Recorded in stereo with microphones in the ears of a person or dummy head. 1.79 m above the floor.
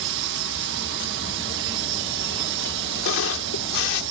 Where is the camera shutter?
75° left (ahead or behind).